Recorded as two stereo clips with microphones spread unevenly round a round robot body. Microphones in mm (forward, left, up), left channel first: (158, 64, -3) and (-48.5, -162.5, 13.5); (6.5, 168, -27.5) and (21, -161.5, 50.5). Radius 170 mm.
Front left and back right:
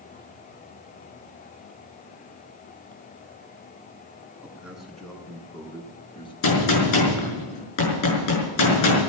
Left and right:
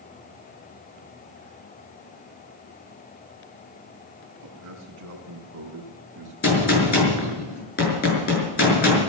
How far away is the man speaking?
About 4.5 m.